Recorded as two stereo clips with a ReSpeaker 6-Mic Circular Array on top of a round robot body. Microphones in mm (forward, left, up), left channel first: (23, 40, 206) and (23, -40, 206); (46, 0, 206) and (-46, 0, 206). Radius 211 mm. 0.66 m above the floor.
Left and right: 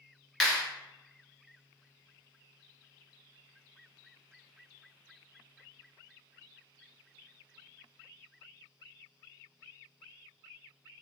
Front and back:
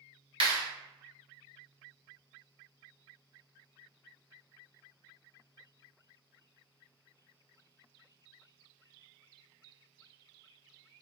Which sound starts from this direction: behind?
A clap, at 0.4 s.